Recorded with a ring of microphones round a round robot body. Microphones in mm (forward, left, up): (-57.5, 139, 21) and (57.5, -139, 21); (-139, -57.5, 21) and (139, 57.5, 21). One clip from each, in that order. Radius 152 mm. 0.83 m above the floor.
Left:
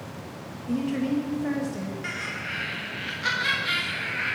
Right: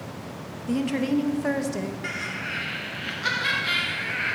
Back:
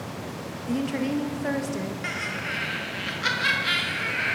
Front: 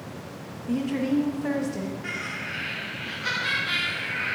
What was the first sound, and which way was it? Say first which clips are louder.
A woman speaking: right 2 dB, front 1 dB; 100° right.